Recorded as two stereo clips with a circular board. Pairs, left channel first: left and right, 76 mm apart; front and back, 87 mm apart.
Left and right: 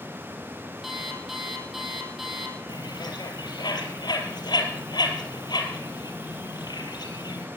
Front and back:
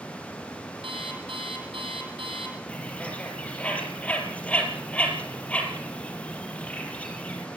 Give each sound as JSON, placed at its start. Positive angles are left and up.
{"t": 0.8, "sound": "an alarm clock", "azimuth_deg": -175, "distance_m": 5.0}
{"t": 2.7, "sound": "a bird", "azimuth_deg": 75, "distance_m": 4.5}